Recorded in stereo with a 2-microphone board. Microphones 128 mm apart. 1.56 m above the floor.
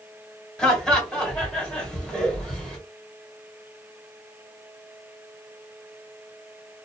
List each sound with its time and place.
0.6 s laughter: 5° left (ahead or behind), 1.7 m